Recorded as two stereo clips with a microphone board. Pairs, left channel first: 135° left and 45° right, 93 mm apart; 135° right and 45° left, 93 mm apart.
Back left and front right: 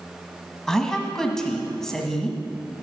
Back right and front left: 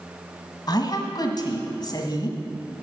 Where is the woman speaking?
145° right, 1.4 m.